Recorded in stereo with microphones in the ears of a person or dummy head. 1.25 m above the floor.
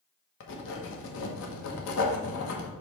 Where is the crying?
I don't hear crying.